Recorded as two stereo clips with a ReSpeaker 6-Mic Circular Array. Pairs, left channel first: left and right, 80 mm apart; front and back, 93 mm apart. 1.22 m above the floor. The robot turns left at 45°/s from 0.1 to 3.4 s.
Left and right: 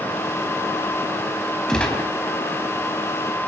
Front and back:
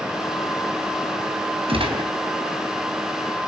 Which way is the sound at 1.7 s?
175° left.